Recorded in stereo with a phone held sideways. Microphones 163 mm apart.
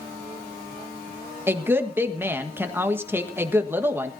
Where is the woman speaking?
15° right (ahead or behind), 1.5 m.